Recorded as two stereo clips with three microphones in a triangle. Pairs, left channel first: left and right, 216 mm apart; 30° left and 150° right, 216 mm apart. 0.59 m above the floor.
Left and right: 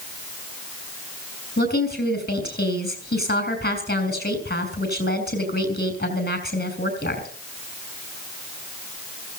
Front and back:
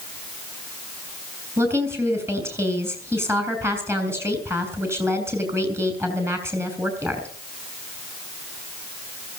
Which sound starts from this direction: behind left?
A woman speaking, at 1.6 s.